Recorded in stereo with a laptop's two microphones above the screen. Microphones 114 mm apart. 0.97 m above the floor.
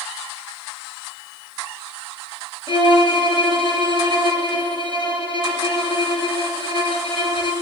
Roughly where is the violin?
Left.